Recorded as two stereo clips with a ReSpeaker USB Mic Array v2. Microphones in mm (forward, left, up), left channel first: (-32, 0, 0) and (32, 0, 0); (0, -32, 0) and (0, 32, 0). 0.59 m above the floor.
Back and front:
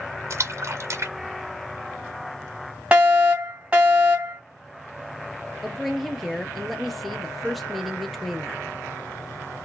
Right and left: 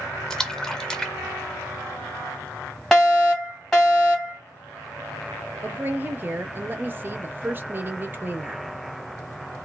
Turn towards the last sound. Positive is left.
turn(degrees=85)